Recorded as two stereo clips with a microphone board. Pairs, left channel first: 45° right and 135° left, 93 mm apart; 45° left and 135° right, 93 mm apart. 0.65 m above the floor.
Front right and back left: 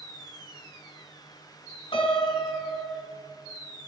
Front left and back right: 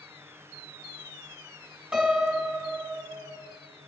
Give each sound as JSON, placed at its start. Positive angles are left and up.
{"t": 1.9, "sound": "a piano", "azimuth_deg": -50, "distance_m": 3.0}